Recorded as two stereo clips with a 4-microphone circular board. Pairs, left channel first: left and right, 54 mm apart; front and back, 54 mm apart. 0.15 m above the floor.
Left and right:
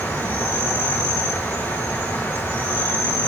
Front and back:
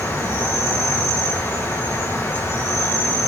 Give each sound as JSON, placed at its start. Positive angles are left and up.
{"t": 0.0, "sound": "an insect", "azimuth_deg": 35, "distance_m": 6.0}